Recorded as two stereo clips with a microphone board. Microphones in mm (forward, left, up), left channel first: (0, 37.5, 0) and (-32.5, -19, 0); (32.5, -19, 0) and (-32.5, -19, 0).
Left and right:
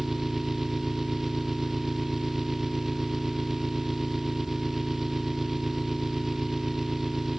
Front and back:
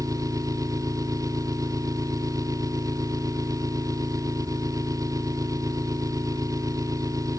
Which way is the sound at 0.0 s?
155° left.